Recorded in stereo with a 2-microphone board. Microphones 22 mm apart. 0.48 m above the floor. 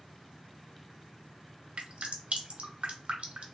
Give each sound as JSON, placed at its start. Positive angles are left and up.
{"t": 1.8, "sound": "dripping", "side_deg": -60, "distance_m": 0.7}